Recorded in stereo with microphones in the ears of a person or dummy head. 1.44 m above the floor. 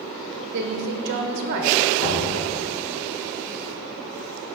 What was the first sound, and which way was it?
A woman speaking, 55° right (ahead or behind).